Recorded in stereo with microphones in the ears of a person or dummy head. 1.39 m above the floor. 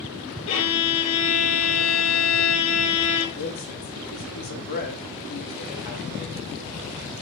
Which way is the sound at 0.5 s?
80° left.